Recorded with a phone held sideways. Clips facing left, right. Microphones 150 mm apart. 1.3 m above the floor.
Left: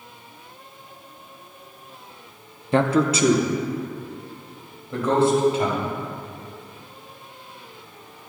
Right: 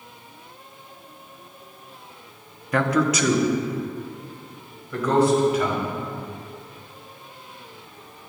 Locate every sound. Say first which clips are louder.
2.7 s a man speaking: left 2 dB; 25° left (ahead or behind), 0.6 m